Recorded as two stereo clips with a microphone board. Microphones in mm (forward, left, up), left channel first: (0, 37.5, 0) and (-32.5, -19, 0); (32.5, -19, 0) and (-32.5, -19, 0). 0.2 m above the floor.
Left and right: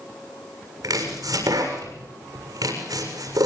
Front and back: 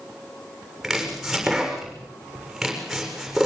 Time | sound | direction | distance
0.8 | chopping | 95° right | 7.5 m